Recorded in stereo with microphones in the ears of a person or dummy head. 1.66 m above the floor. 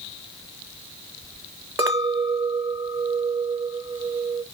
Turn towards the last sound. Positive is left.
turn(degrees=-20)  # may be behind; listen again after turning